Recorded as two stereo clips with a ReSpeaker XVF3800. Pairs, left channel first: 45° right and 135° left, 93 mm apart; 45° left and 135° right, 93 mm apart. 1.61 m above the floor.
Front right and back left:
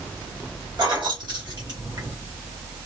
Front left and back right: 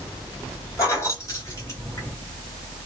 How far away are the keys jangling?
About 1.7 m.